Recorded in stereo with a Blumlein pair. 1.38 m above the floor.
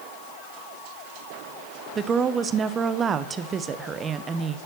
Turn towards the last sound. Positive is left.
turn(degrees=-20)